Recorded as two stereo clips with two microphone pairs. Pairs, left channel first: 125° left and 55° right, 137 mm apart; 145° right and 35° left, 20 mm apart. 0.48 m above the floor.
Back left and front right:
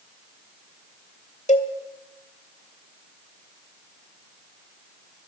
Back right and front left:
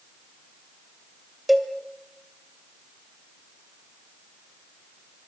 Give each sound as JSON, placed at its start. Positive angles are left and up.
{"t": 1.5, "sound": "a cowbell", "azimuth_deg": 115, "distance_m": 2.0}